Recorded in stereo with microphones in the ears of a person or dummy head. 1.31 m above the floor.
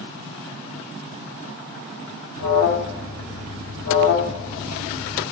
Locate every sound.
2.4 s an alarm: 60° left (ahead or behind), 0.8 m